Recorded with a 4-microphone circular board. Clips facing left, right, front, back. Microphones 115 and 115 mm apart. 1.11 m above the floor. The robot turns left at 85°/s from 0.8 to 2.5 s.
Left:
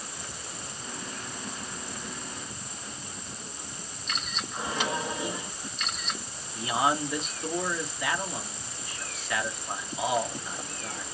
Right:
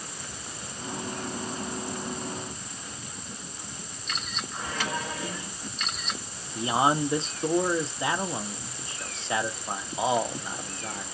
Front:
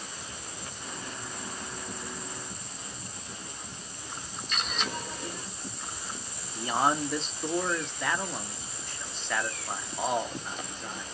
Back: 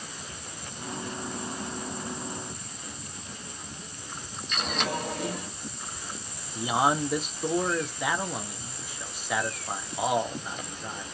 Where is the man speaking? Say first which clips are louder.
Right 3 dB, back 2 dB; 110° right, 0.8 m.